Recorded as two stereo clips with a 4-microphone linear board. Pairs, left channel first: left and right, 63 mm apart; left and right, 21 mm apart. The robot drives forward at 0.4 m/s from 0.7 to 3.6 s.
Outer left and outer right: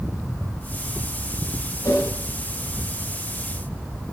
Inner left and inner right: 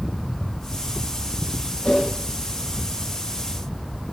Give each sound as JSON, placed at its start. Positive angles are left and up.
{"t": 1.8, "sound": "a whoosh", "side_deg": 60, "distance_m": 4.0}